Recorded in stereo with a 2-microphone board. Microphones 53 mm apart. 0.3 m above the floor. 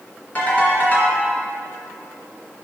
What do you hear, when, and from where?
0.3 s a ringtone: 35° left (ahead or behind), 2.5 m